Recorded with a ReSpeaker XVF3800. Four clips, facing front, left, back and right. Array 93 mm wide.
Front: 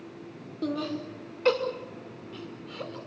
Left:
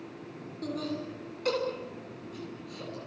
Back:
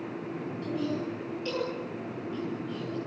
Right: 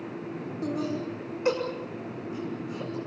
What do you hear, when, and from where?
0.6 s laughter: 20° right, 5.5 m; by 3.0 s 30° right, 6 m